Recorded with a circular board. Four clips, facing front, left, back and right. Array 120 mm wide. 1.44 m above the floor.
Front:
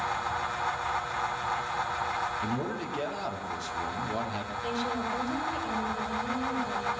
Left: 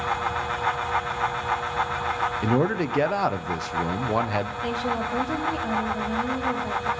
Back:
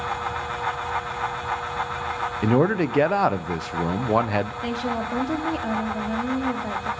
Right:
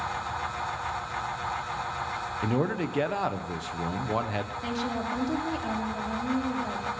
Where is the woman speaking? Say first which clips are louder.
Left 4 dB, back 4 dB; 175° right, 3 m.